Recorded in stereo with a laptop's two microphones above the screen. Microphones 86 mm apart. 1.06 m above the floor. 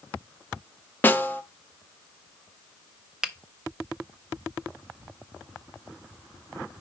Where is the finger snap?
5° right (ahead or behind), 0.5 m.